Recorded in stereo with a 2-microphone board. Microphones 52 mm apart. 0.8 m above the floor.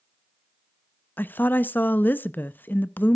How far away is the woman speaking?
About 0.5 m.